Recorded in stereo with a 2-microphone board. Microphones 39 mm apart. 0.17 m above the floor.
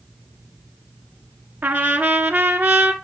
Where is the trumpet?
60° right (ahead or behind), 1.0 m.